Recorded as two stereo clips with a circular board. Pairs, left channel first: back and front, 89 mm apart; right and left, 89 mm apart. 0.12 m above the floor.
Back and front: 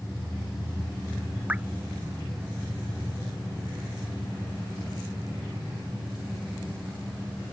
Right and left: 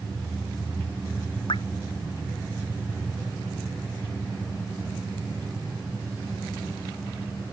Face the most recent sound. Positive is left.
turn(degrees=-75)